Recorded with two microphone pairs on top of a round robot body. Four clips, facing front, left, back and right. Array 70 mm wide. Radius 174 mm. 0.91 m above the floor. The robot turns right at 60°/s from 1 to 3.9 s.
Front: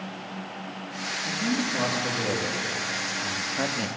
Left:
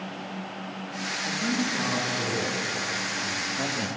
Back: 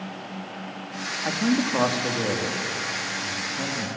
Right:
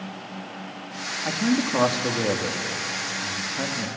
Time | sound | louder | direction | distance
1.2 | a man speaking | right 6 dB, back 5 dB | 155° right | 1.8 m